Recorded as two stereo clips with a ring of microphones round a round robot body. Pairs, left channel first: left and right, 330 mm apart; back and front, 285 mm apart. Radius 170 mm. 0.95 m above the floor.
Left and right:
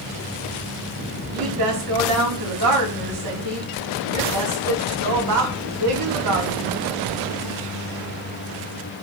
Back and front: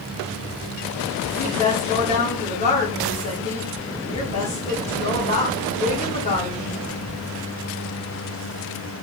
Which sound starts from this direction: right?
A woman speaking, at 1.3 s.